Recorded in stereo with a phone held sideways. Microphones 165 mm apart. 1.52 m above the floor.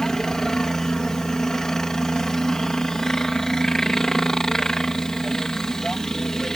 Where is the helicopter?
5° left (ahead or behind).